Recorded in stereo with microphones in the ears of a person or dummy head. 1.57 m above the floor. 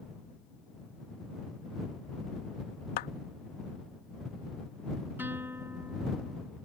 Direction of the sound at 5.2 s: 10° right (ahead or behind).